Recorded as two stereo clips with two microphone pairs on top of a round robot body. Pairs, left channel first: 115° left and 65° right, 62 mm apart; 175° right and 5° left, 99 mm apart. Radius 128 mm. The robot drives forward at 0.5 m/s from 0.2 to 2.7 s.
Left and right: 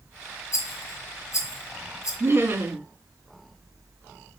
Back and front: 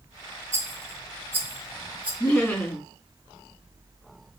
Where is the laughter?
100° right, 1.7 m; by 2.9 s 115° right, 1.7 m.